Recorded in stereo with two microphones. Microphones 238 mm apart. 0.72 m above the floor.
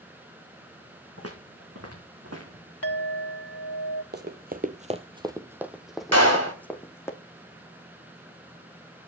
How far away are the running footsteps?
About 0.9 m.